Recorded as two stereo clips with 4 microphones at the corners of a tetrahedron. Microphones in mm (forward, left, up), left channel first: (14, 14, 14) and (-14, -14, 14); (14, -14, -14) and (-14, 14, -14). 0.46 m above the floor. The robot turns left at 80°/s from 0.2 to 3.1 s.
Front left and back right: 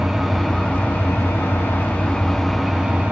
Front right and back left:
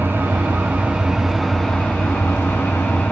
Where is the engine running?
140° left, 4 m; by 3.1 s 95° right, 4 m.